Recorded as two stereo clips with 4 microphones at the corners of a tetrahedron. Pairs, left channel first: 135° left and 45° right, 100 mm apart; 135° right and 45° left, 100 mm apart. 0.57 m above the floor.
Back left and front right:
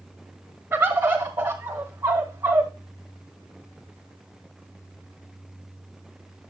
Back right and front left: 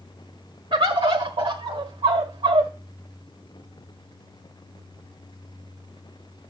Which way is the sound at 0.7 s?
20° left.